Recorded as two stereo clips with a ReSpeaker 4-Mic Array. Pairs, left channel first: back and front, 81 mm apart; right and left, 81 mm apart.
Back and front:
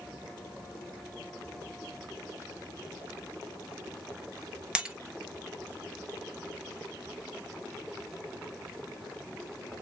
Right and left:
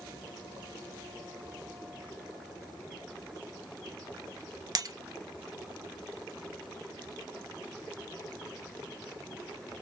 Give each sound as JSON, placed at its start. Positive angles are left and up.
{"t": 4.8, "sound": "breaking glass", "azimuth_deg": 75, "distance_m": 0.8}